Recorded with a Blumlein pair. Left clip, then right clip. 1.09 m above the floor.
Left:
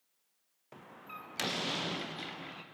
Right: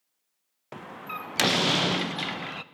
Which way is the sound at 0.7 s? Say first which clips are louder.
Right 11 dB; 60° right.